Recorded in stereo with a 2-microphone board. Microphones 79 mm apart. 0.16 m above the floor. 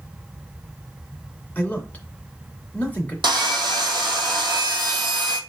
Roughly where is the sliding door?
I don't hear a sliding door.